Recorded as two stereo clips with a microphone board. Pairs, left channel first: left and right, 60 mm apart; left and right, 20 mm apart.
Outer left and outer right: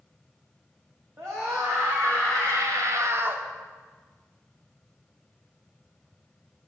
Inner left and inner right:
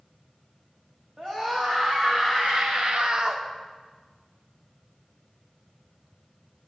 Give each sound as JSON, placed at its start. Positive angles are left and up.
{"t": 1.2, "sound": "a scream", "side_deg": -50, "distance_m": 1.6}